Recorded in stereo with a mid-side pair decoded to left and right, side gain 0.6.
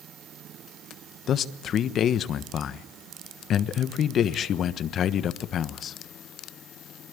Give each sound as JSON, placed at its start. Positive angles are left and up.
{"t": 1.3, "sound": "a man speaking", "azimuth_deg": 45, "distance_m": 1.3}